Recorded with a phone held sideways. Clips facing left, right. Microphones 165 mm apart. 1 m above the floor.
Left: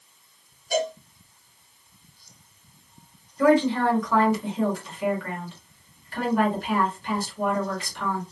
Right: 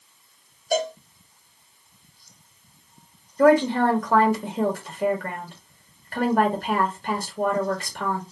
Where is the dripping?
No dripping in this recording.